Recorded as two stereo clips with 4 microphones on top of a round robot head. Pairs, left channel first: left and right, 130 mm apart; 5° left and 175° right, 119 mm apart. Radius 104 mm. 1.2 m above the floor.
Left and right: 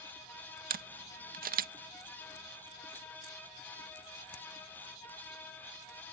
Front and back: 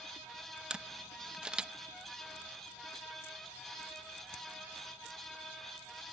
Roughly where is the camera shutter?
Right.